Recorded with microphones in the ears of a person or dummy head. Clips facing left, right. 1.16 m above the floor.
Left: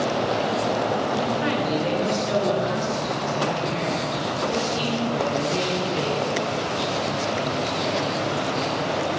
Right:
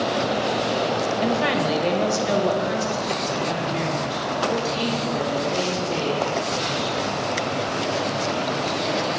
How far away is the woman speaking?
About 1.1 m.